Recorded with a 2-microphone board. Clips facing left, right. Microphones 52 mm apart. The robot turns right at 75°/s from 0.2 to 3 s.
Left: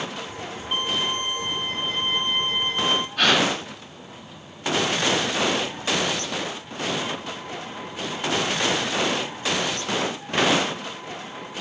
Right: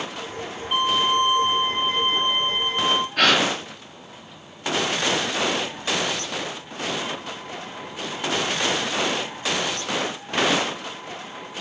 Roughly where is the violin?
Behind.